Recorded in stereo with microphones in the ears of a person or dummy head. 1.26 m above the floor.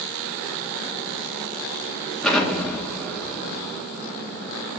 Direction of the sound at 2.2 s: Centre (ahead or behind).